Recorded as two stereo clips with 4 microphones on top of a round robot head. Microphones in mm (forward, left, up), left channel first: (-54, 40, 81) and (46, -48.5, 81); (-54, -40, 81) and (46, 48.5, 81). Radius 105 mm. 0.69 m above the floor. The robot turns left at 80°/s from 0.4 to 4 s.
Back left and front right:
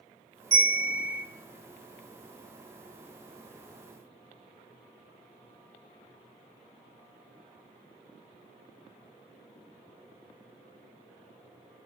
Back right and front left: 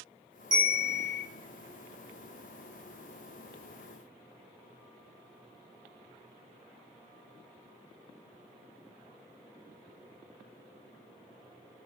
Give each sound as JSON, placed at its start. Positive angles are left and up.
{"t": 0.5, "sound": "a bell", "azimuth_deg": -10, "distance_m": 1.8}